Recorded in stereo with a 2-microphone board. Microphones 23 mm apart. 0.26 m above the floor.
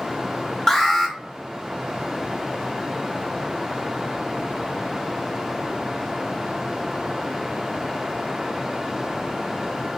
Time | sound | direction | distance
0.7 | an alarm | 20° left (ahead or behind) | 1.2 m